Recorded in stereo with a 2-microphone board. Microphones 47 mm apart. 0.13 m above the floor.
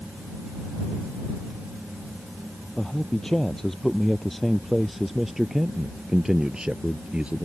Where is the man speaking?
15° left (ahead or behind); by 7.5 s 25° right (ahead or behind).